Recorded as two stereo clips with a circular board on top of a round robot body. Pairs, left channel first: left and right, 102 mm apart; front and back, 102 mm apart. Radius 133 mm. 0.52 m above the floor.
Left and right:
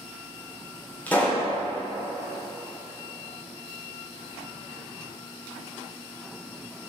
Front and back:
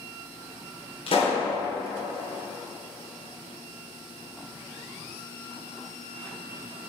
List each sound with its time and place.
1.1 s a pop: 15° left, 2.5 m